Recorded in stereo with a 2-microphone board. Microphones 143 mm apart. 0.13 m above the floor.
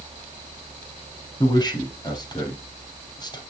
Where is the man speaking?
30° left (ahead or behind), 3.5 m.